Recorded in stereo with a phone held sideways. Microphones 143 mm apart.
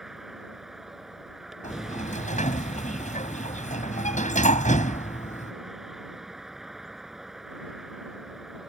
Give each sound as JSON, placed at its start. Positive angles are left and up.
{"t": 0.0, "sound": "a vehicle", "side_deg": -5}
{"t": 1.6, "sound": "a sliding door", "side_deg": 65}